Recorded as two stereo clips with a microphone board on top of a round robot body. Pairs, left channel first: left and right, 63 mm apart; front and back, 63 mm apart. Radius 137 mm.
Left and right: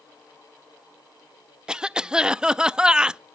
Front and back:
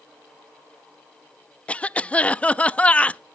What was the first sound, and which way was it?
A cough, 35° right.